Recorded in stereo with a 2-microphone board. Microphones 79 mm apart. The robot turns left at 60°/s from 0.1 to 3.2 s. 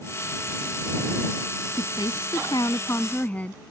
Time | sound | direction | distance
1.8 | a woman speaking | 105° left | ?